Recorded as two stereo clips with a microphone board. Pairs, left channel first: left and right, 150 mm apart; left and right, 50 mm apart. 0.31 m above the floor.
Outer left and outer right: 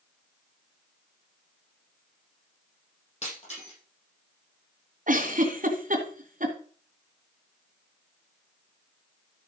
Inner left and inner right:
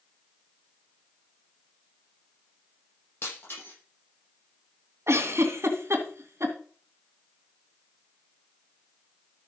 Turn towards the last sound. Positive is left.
turn(degrees=-65)  # may be behind; listen again after turning